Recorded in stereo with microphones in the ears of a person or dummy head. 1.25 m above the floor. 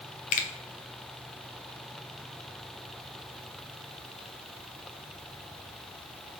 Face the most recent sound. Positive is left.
turn(degrees=45)  # may be behind; listen again after turning